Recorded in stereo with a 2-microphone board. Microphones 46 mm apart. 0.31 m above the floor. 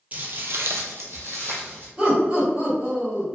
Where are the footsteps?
35° right (ahead or behind), 0.5 m; by 1.9 s 50° right (ahead or behind), 1.1 m.